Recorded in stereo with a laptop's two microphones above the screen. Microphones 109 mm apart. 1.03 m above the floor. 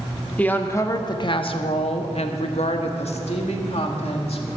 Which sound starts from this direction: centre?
A woman speaking, at 0.4 s.